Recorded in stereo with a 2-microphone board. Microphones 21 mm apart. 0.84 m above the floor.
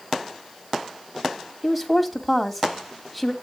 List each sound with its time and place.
1.6 s a woman speaking: 10° right (ahead or behind), 2 m